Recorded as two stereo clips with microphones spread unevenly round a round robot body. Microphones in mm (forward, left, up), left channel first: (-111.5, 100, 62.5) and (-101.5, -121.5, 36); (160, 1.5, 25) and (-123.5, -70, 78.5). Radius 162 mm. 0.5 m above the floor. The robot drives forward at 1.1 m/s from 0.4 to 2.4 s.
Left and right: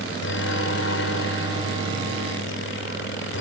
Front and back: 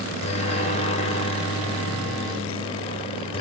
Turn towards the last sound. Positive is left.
turn(degrees=70)